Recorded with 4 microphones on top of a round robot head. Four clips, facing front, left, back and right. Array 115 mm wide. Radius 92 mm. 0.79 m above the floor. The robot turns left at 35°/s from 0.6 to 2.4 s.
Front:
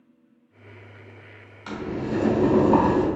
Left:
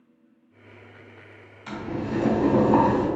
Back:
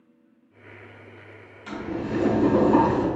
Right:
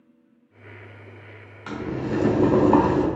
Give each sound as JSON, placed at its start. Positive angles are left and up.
{"t": 1.7, "sound": "boiling", "azimuth_deg": -70, "distance_m": 1.1}